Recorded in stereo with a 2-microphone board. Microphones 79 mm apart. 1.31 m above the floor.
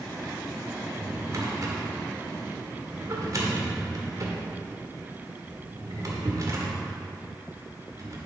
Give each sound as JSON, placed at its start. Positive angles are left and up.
{"t": 0.8, "sound": "a drawer", "side_deg": -45, "distance_m": 1.7}